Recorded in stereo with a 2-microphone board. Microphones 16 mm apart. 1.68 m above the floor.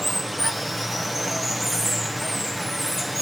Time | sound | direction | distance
0.0 | running water | 10° right (ahead or behind) | 1.0 m